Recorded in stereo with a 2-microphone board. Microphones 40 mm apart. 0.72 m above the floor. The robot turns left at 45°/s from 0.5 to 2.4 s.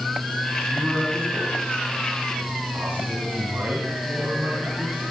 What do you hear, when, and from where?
0.7 s a man speaking: 45° right, 5.5 m; by 5.0 s 120° right, 5.5 m